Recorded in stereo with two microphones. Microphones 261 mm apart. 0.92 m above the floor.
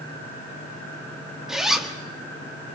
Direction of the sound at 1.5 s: Centre (ahead or behind).